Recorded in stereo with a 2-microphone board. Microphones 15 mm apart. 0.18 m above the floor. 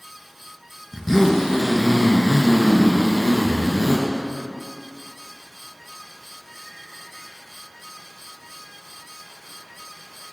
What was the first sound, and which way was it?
A zipper, 25° left (ahead or behind).